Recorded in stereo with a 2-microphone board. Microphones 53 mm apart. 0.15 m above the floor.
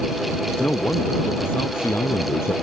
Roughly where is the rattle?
I don't hear a rattle.